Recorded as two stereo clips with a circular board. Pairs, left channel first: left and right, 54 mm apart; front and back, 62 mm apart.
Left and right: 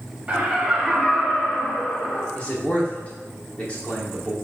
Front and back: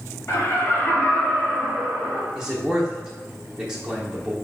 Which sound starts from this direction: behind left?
A man speaking, at 2.4 s.